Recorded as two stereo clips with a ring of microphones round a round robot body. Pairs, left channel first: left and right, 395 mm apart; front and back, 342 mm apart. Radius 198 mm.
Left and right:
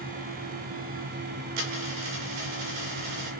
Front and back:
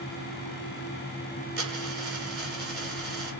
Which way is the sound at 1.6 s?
115° right.